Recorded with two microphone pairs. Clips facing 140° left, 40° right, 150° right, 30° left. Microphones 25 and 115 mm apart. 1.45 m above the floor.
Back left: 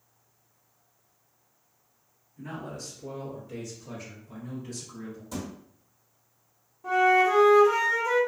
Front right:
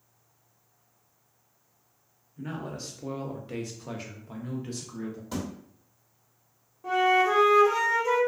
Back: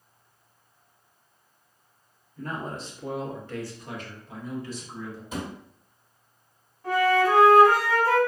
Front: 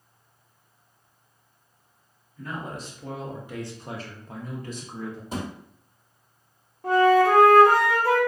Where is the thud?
5° right, 1.5 m.